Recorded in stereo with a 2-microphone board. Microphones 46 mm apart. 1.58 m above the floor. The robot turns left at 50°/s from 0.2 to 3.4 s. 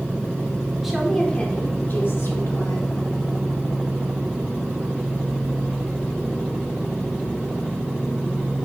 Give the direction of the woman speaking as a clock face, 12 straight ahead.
6 o'clock.